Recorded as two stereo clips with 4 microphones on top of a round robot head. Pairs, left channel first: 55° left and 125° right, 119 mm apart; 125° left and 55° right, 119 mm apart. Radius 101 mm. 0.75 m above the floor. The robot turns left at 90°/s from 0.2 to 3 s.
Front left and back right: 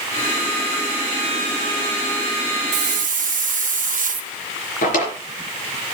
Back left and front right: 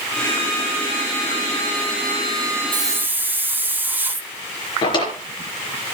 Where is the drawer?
70° left, 4 m.